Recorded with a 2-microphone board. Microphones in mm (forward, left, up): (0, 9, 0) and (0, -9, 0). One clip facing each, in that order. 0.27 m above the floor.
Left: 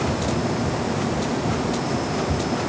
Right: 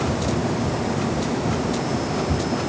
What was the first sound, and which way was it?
Only background noise.